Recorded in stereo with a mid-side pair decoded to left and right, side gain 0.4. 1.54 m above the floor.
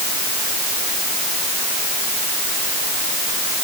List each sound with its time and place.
Only background noise.